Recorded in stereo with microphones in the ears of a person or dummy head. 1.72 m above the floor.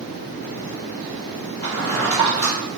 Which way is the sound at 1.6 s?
10° left (ahead or behind).